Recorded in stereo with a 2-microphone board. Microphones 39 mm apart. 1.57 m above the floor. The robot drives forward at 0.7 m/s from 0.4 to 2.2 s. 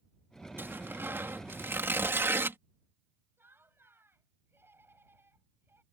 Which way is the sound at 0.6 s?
65° right (ahead or behind).